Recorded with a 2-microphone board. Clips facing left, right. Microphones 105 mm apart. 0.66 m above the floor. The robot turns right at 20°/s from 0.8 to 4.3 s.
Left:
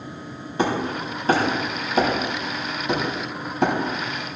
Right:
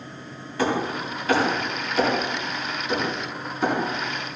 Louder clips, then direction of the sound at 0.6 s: Left 1 dB; 25° left (ahead or behind).